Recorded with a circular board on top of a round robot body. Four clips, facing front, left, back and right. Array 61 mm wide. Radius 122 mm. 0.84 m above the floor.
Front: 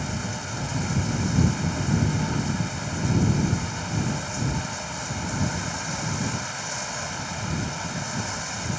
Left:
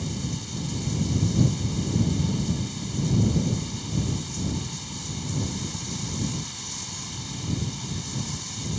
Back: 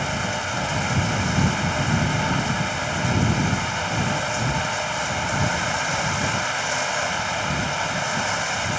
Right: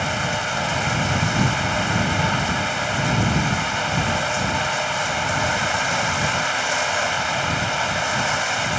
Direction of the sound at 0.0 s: 115° right.